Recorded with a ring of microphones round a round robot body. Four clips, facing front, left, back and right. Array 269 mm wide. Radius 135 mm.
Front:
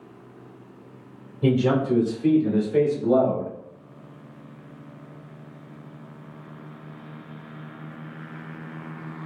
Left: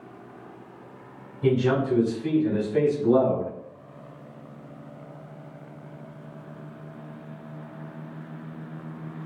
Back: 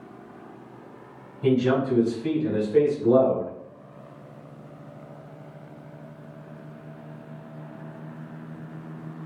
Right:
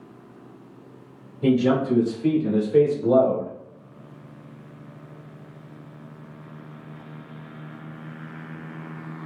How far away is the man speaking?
About 1.7 m.